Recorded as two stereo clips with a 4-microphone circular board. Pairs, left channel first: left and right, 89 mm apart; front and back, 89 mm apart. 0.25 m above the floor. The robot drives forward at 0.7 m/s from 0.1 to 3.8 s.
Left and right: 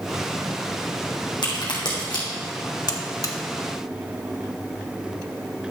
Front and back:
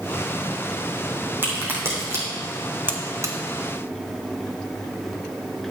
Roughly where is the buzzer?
Behind left.